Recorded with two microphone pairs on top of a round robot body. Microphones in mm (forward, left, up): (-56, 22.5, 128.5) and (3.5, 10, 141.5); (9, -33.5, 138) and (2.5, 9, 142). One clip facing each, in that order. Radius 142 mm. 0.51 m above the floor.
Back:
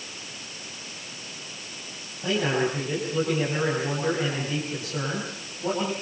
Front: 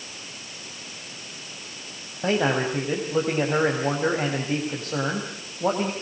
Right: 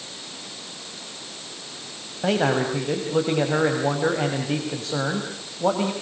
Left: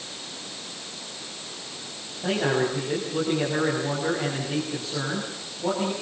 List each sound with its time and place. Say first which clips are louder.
2.2 s a man speaking: front 2 dB, right 3 dB; 60° right, 5 m